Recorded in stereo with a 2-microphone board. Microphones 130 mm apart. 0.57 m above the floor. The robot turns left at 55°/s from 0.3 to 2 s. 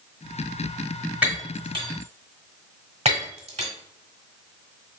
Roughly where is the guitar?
No guitar in this recording.